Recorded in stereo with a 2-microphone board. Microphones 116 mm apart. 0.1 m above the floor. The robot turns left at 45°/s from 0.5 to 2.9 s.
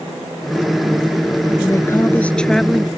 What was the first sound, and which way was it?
A woman speaking, 50° left.